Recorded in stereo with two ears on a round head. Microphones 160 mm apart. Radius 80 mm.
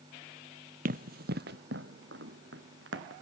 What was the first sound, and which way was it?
Running footsteps, 50° right (ahead or behind).